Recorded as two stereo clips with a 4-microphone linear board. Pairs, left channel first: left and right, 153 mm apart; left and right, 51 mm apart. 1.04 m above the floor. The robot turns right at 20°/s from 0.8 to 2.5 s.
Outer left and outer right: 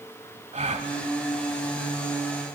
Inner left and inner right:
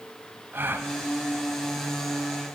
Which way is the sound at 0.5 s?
50° right (ahead or behind).